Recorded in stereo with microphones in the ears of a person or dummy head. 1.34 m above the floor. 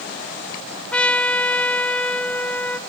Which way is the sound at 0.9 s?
5° left (ahead or behind).